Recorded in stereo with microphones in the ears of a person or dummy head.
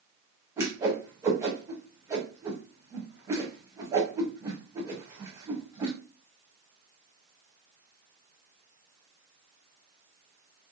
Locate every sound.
0.6 s a whoosh: 15° right (ahead or behind), 0.8 m